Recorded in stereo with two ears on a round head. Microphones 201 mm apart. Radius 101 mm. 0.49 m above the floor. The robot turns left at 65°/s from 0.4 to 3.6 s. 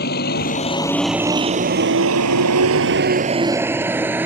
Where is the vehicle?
45° left (ahead or behind); by 4.3 s 10° right (ahead or behind).